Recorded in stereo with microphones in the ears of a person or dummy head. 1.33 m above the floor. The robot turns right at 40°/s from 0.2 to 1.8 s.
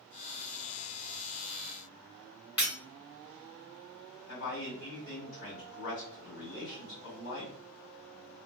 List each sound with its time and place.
2.6 s breaking glass: 25° left (ahead or behind), 1.4 m
4.3 s a man speaking: 65° left (ahead or behind), 1.8 m